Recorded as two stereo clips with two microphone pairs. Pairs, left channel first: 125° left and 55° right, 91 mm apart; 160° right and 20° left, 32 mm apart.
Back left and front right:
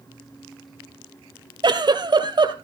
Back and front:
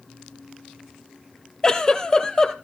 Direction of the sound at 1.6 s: 90° right.